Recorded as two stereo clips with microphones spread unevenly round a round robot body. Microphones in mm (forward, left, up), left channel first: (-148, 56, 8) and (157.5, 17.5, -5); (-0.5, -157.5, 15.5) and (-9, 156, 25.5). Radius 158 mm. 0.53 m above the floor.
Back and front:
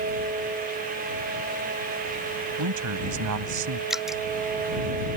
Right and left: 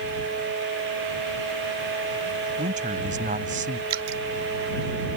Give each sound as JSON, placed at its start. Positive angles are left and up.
{"t": 2.6, "sound": "a man speaking", "azimuth_deg": 25}
{"t": 3.9, "sound": "dripping", "azimuth_deg": 80}